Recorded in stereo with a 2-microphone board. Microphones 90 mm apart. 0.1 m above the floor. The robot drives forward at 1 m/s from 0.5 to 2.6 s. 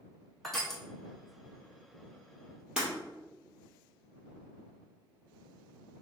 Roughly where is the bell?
I don't hear a bell.